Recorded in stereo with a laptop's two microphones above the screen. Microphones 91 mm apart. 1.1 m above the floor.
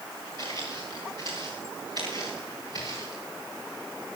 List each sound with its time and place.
0.4 s footsteps: 50° right (ahead or behind), 8 m